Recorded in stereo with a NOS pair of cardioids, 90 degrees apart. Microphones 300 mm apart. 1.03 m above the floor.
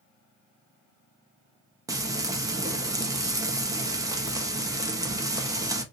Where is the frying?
10° right, 0.8 m.